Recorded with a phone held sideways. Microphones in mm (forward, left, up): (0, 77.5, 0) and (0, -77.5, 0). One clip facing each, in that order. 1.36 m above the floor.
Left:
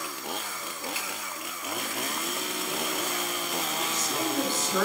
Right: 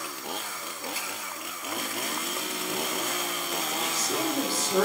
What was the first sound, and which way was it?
A finger snap, 40° right (ahead or behind).